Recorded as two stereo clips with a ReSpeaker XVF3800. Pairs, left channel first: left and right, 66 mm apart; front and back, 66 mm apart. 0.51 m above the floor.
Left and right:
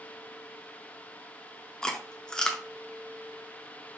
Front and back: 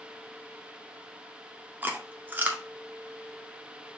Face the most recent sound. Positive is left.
turn(degrees=155)